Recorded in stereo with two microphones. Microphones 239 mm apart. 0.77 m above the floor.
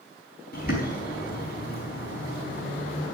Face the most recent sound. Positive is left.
turn(degrees=40)  # may be behind; listen again after turning